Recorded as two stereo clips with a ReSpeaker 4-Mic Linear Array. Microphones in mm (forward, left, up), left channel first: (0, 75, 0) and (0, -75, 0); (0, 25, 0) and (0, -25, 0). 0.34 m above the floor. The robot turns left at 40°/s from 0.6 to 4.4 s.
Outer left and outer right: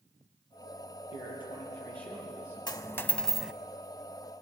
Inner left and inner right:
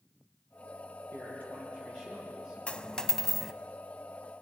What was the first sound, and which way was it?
A man speaking, 45° left.